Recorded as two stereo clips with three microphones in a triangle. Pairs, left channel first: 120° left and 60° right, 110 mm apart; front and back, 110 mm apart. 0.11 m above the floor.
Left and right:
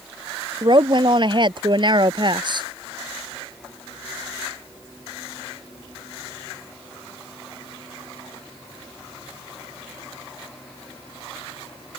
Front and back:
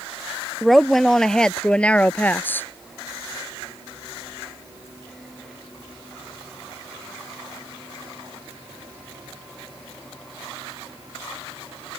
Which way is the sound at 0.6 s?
90° right.